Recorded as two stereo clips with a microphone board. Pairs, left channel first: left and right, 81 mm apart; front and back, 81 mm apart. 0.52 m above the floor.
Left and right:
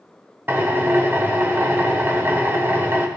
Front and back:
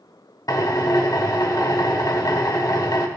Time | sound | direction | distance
0.5 | a drill | 30° right | 1.1 m